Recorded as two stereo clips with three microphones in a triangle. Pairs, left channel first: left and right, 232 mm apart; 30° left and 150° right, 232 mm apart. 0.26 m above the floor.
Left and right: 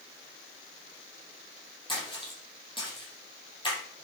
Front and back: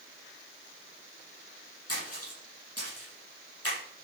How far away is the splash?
About 8 m.